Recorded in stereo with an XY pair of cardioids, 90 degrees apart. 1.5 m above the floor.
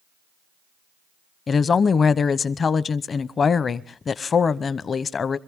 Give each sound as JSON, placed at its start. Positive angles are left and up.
{"t": 1.5, "sound": "a woman speaking", "azimuth_deg": 50, "distance_m": 0.8}